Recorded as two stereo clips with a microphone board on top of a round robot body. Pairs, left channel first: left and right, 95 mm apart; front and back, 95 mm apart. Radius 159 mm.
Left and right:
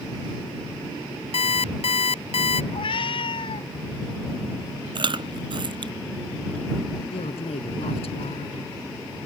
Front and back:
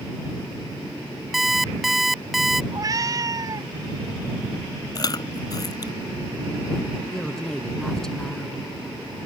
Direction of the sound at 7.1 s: 85° left.